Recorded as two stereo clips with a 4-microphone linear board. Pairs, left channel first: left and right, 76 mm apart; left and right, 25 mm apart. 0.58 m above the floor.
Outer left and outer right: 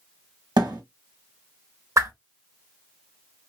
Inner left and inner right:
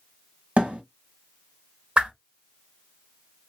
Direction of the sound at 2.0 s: 45° right (ahead or behind).